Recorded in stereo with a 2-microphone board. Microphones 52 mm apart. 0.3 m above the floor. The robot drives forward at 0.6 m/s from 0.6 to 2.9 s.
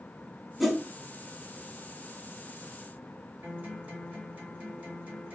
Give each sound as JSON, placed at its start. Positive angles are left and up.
{"t": 0.6, "sound": "a whoosh", "side_deg": -5, "distance_m": 1.1}
{"t": 3.4, "sound": "a guitar", "side_deg": -25, "distance_m": 4.0}